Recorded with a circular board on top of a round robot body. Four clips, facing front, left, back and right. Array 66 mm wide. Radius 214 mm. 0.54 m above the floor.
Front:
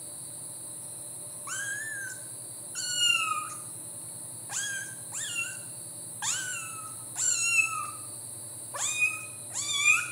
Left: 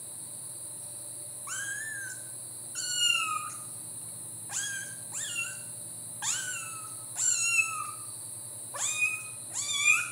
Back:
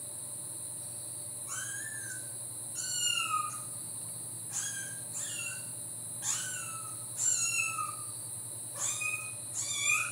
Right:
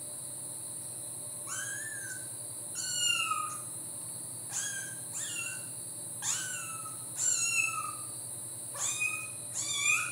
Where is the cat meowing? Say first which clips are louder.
Left 4 dB, front 8 dB; 30° left, 0.9 m.